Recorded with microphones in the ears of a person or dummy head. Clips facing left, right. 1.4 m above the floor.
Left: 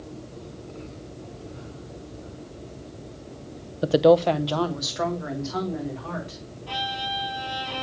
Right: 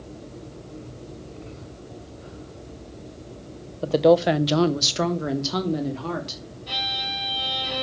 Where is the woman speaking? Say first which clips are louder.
Even; 25° left (ahead or behind), 0.7 m; by 6.4 s 60° right (ahead or behind), 2.5 m.